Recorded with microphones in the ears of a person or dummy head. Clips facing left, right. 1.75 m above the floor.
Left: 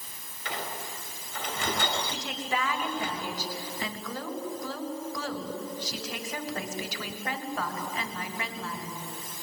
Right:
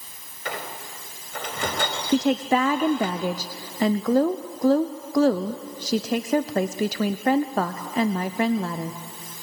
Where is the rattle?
I don't hear a rattle.